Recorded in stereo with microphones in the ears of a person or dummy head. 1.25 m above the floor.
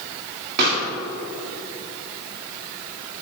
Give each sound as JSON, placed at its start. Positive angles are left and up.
{"t": 0.6, "sound": "a pop", "side_deg": -55, "distance_m": 2.0}